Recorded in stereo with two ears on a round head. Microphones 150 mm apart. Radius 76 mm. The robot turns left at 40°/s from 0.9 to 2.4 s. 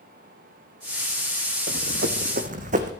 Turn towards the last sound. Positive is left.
turn(degrees=-45)  # may be behind; listen again after turning